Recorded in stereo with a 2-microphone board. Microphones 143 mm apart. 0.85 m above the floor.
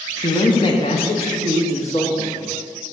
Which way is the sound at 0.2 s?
25° left (ahead or behind).